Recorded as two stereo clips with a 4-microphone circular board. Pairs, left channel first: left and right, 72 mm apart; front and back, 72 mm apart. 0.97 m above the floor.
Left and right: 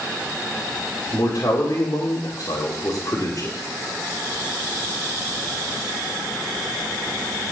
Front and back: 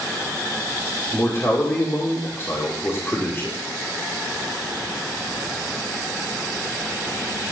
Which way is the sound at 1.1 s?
50° left.